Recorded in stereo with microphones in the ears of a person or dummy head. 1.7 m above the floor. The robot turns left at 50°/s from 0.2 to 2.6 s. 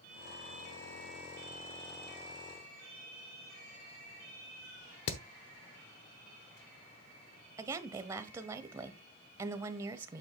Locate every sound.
5.1 s hammering: 60° left (ahead or behind), 0.9 m
7.6 s a woman speaking: 20° right (ahead or behind), 1.0 m